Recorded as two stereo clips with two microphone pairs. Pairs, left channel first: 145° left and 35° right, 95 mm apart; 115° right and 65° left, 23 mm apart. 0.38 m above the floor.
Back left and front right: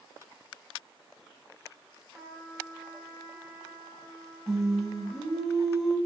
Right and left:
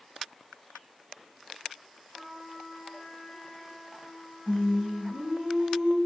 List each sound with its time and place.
2.1 s a trumpet: 130° right, 1.9 m
4.5 s singing: 50° left, 0.7 m